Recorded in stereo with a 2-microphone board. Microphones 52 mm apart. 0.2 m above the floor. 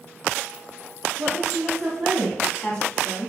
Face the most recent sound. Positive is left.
turn(degrees=30)  # may be behind; listen again after turning